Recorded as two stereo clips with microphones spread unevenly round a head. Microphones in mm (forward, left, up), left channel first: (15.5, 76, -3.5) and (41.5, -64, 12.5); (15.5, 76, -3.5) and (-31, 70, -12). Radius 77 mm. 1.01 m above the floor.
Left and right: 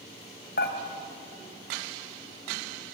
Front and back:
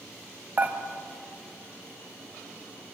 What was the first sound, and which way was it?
Dishes clattering, 135° left.